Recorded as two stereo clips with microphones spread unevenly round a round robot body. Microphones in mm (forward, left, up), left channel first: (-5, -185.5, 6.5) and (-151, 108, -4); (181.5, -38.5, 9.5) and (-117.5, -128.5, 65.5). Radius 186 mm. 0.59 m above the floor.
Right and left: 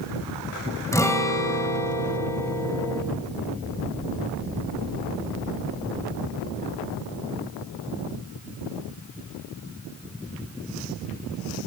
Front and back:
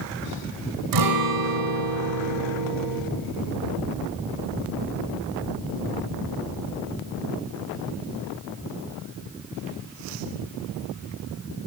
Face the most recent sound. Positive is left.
turn(degrees=-145)